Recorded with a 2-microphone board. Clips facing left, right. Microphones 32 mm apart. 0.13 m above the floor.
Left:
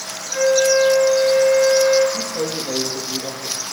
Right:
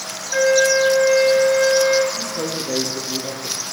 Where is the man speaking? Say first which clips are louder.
Left 1 dB; 40° left (ahead or behind), 4 m.